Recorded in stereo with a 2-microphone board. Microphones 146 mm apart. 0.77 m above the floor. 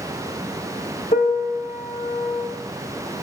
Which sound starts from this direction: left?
A piano, at 1.1 s.